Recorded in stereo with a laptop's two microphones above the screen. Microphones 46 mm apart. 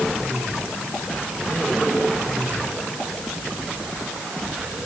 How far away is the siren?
No siren in this recording.